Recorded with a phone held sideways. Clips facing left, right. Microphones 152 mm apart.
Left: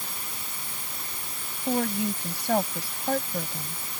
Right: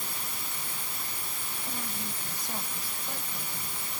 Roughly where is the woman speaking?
Left.